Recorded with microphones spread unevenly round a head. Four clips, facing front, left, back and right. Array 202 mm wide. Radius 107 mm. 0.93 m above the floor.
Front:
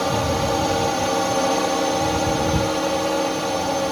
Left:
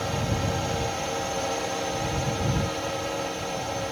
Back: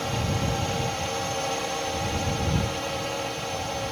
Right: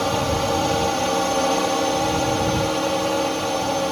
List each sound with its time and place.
0.0 s a drone: 40° right